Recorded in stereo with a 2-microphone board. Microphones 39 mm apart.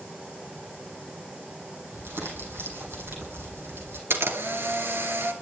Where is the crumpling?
75° right (ahead or behind), 7 m.